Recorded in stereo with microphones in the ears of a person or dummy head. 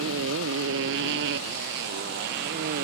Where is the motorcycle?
80° right; by 2.9 s 65° right (ahead or behind).